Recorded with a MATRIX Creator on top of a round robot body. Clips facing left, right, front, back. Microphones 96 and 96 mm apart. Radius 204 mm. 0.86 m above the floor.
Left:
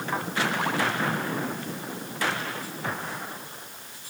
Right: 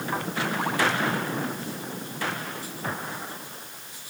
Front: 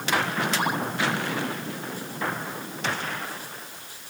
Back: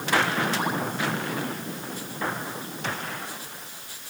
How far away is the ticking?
No ticking in this recording.